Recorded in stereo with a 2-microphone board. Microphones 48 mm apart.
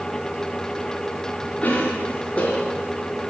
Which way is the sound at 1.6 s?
35° left (ahead or behind).